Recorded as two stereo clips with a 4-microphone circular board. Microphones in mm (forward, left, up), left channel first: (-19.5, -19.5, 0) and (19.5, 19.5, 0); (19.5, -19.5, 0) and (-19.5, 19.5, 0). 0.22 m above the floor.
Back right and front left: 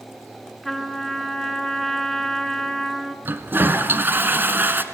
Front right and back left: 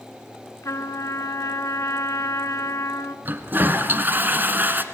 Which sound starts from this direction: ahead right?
A trumpet, at 0.6 s.